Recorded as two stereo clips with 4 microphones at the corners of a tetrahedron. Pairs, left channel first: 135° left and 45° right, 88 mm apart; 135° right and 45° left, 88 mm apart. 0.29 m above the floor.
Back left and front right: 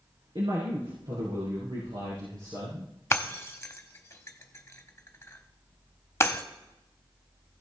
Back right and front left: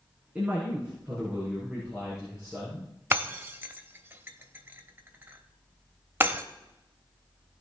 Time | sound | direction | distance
0.3 | a man speaking | 25° right | 3 m
3.1 | breaking glass | 95° left | 0.9 m